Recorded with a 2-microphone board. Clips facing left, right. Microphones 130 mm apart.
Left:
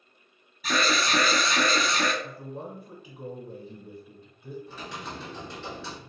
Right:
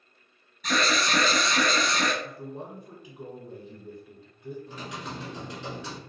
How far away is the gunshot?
I don't hear a gunshot.